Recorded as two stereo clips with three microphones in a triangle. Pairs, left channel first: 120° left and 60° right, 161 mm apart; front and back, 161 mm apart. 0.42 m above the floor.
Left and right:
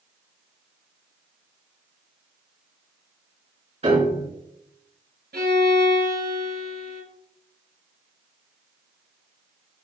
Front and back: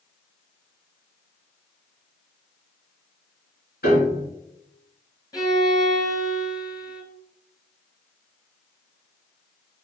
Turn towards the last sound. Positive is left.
turn(degrees=-65)